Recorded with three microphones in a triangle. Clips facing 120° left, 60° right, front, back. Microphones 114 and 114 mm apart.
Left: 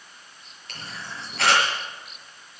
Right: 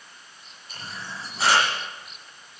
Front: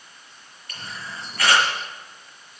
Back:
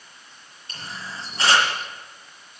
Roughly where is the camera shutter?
Behind left.